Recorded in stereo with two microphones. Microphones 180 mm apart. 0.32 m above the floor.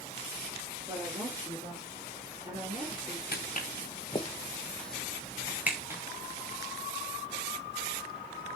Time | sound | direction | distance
0.9 | a woman speaking | 25° right (ahead or behind) | 8 m
3.3 | footsteps | 55° left (ahead or behind) | 1.9 m